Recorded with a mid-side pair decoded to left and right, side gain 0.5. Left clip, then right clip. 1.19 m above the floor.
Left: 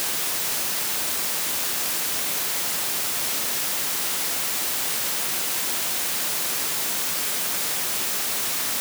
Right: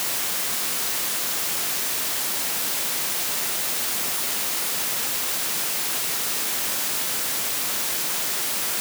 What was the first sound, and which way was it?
Only background noise.